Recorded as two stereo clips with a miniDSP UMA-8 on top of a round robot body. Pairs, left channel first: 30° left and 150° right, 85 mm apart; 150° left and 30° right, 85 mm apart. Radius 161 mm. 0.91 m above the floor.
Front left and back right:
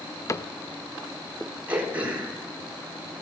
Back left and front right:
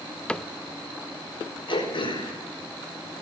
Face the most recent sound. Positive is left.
turn(degrees=135)